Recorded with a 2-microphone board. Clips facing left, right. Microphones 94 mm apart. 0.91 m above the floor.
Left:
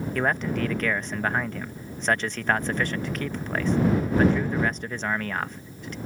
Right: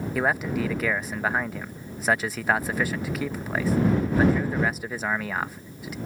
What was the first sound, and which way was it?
A man speaking, 5° right (ahead or behind).